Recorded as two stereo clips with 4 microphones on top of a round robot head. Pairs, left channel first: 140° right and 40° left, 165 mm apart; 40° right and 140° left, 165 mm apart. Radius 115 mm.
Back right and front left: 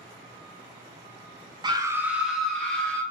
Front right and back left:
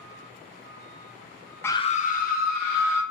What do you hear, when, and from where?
1.6 s a scream: 25° left, 0.5 m; by 3.0 s 60° right, 1.6 m